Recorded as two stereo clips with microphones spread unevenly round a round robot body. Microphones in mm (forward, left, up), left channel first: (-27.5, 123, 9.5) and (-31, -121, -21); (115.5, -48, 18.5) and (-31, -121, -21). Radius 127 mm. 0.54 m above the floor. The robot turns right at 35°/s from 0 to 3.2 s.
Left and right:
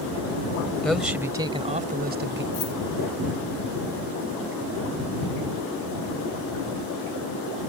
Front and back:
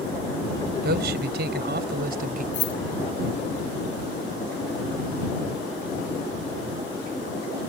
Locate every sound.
0.8 s a man speaking: 175° left; by 2.4 s 125° right
2.5 s keys jangling: 15° left; by 2.8 s 20° left